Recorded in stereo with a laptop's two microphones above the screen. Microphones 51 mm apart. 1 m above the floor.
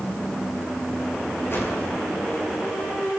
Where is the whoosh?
55° left (ahead or behind), 5.5 m.